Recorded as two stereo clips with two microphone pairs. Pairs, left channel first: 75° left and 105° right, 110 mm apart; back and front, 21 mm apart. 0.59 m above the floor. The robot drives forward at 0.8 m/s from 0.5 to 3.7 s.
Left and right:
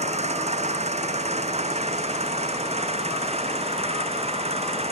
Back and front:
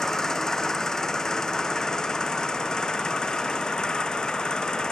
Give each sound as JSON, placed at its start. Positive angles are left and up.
{"t": 0.0, "sound": "an engine running", "azimuth_deg": -115}